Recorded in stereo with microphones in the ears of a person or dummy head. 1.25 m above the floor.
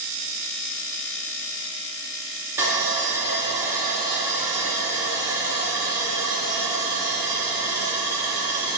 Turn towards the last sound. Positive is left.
turn(degrees=-10)  # may be behind; listen again after turning